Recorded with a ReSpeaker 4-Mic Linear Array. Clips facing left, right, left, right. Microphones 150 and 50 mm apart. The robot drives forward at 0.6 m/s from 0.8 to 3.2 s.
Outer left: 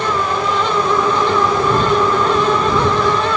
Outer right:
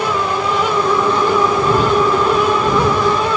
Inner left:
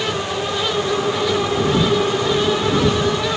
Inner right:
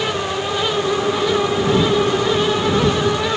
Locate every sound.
Only background noise.